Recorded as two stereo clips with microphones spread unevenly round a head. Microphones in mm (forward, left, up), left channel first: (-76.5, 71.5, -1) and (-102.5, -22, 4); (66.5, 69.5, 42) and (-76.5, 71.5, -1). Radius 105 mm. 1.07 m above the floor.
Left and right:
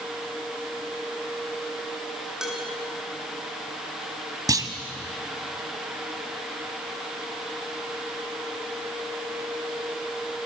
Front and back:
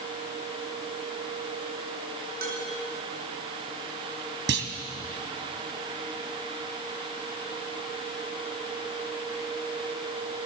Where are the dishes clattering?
170° left, 8 m.